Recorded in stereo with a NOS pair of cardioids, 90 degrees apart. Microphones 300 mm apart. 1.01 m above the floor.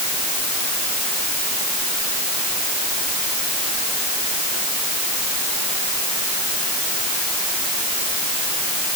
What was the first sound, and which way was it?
Only background noise.